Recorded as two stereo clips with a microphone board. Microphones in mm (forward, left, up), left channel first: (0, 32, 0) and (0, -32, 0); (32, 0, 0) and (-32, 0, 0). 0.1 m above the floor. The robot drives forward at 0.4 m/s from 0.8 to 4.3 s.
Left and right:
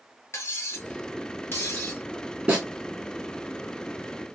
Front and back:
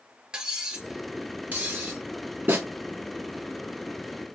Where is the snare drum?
155° right, 1.9 m.